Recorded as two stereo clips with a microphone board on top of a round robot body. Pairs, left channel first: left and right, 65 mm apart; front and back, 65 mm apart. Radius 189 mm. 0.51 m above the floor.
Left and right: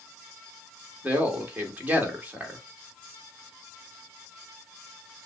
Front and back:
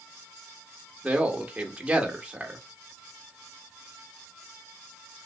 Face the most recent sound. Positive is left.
turn(degrees=-125)